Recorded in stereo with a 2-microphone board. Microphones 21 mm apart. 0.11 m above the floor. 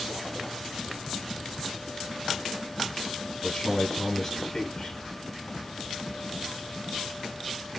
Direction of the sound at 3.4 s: 25° left (ahead or behind).